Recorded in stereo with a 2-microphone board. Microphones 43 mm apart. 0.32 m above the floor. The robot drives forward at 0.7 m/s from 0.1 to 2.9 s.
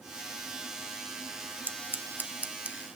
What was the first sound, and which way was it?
Scissors, 45° right (ahead or behind).